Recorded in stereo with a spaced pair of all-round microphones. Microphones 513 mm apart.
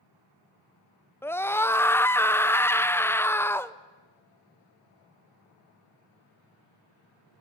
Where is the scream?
5° left (ahead or behind), 0.7 m.